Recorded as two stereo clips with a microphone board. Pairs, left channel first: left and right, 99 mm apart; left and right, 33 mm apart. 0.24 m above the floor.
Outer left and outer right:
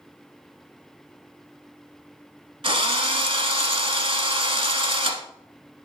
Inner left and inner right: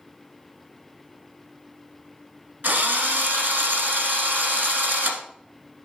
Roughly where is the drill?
Right.